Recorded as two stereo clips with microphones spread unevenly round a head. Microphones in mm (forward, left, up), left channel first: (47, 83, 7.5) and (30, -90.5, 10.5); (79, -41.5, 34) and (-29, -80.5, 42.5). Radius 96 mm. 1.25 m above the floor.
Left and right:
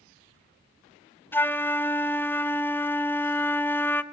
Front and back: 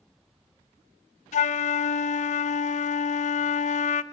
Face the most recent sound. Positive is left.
turn(degrees=5)